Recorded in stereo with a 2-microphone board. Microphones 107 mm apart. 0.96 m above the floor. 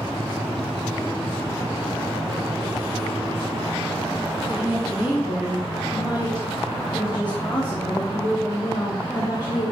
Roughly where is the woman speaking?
Centre.